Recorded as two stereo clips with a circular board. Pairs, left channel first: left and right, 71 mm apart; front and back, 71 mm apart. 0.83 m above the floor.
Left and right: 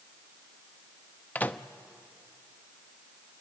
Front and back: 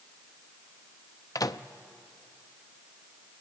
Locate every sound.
1.4 s a microwave: 25° left, 0.6 m